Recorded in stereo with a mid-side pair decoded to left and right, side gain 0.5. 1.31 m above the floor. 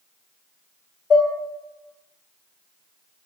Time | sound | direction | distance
1.1 | dishes clattering | 45° left | 0.8 m